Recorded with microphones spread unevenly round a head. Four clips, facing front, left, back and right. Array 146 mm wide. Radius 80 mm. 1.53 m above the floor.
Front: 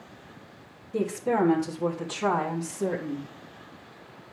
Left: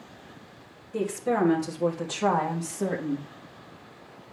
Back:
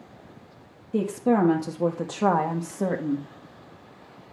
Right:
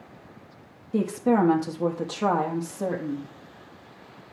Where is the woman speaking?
140° right, 1.9 m; by 3.3 s straight behind, 1.9 m.